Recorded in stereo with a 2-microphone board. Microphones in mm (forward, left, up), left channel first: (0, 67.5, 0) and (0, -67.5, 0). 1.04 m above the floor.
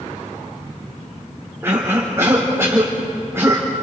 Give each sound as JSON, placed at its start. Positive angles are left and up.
{"t": 1.6, "sound": "a cough", "side_deg": -20, "distance_m": 4.0}